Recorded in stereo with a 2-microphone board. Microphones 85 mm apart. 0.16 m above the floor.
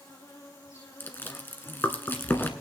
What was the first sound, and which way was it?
An insect, 35° left (ahead or behind).